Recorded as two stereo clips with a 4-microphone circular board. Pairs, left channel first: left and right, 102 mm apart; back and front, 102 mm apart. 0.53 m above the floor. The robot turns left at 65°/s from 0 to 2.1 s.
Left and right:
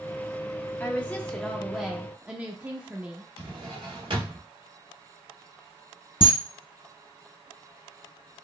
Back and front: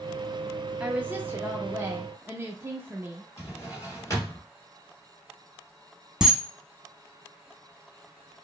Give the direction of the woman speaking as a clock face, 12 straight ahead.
10 o'clock.